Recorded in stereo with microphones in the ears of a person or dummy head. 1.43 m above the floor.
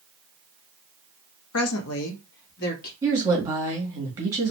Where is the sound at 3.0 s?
15° right (ahead or behind), 1.6 m.